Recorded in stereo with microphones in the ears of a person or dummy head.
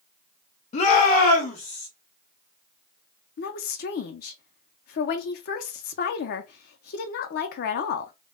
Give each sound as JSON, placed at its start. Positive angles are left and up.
{"t": 0.7, "sound": "a shout", "side_deg": 40, "distance_m": 0.6}
{"t": 3.4, "sound": "a woman speaking", "side_deg": 50, "distance_m": 0.6}